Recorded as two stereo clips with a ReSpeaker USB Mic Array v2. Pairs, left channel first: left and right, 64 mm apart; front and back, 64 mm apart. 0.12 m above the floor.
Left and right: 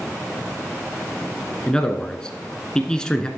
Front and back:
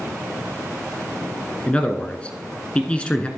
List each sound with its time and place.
1.7 s a man speaking: 35° left, 1.1 m